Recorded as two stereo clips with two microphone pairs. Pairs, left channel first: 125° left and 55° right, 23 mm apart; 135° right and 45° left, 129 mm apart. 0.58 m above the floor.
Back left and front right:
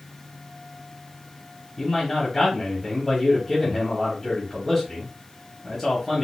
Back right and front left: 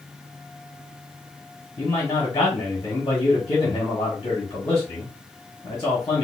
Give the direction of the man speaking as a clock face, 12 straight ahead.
6 o'clock.